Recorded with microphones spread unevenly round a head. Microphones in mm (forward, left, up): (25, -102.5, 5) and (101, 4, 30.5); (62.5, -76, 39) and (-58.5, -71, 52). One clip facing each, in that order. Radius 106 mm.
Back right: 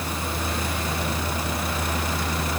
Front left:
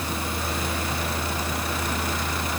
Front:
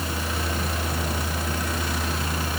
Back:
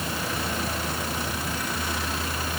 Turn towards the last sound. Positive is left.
No sound to turn to.